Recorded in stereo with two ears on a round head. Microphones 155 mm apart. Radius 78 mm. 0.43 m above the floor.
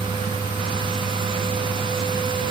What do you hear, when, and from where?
Only background noise.